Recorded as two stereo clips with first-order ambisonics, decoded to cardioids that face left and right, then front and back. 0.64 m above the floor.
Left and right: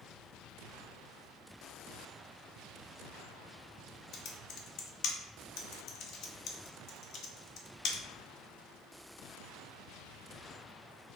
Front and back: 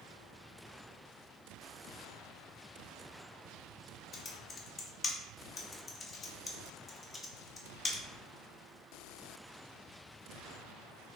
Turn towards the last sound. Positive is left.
turn(degrees=70)